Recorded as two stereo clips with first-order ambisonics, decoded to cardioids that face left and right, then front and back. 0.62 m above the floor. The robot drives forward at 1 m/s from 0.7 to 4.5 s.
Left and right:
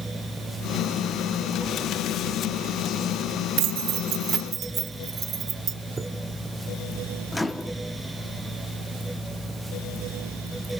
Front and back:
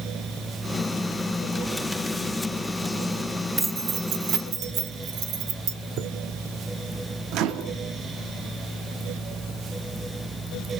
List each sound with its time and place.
3.6 s keys jangling: 100° right, 0.7 m; by 5.8 s 150° right, 1.3 m
6.0 s a chime: 165° right, 1.1 m
7.3 s a microwave: 165° left, 0.7 m